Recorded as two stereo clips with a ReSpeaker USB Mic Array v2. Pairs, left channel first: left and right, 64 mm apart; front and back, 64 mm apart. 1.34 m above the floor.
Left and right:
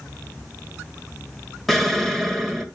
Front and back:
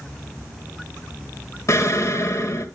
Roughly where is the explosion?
Ahead.